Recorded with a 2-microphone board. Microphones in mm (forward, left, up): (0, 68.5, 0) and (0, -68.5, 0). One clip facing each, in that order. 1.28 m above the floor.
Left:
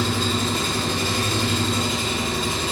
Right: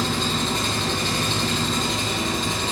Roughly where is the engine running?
Centre.